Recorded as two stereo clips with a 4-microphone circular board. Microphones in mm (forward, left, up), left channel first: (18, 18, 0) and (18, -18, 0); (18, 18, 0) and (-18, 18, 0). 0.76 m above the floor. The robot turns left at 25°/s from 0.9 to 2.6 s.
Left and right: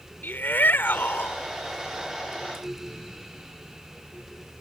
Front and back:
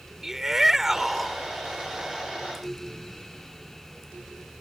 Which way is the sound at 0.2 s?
100° left.